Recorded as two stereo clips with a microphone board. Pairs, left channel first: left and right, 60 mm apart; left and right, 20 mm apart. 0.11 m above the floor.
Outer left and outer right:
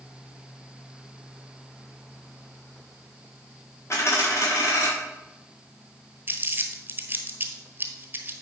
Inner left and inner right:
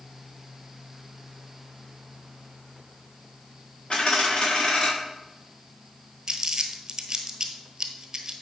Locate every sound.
3.9 s a dropped coin: 55° left (ahead or behind), 3 m
6.3 s crumpling: 35° right (ahead or behind), 1.2 m